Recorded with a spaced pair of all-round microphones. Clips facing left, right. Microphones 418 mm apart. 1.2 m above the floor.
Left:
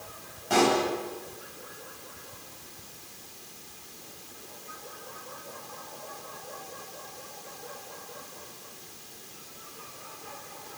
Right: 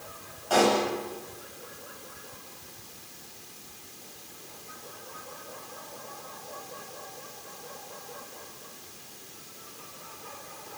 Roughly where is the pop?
Left.